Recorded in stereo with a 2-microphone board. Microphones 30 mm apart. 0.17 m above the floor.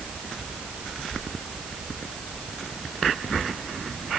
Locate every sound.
Only background noise.